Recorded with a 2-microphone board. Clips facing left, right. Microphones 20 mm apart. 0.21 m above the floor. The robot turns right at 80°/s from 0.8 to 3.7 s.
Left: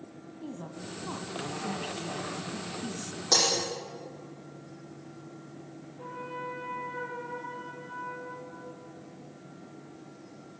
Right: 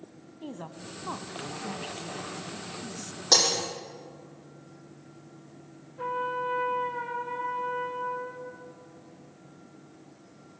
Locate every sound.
0.4 s a woman speaking: 75° right, 1.1 m; by 3.2 s 120° left, 1.1 m
3.3 s breaking glass: 20° right (ahead or behind), 4.5 m; by 3.5 s 5° right (ahead or behind), 4.5 m
6.0 s a trumpet: 80° right, 6 m